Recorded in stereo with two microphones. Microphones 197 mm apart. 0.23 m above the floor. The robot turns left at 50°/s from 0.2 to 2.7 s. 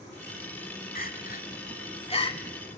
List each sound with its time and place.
0.9 s crying: 50° left (ahead or behind), 1.3 m; by 2.4 s 20° left (ahead or behind), 1.3 m